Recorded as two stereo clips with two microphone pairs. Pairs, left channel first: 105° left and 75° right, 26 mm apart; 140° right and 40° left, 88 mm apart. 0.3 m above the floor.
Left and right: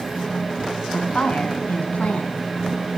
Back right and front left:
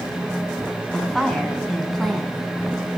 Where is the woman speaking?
135° left, 2.5 m.